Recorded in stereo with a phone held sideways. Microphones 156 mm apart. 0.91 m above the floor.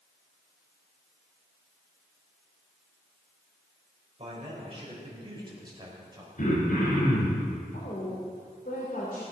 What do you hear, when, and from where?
4.2 s a man speaking: 40° right (ahead or behind), 4.5 m; by 6.4 s 25° right (ahead or behind), 4.5 m
6.4 s throat clearing: 55° left (ahead or behind), 4.5 m
7.7 s a woman speaking: 65° left (ahead or behind), 3 m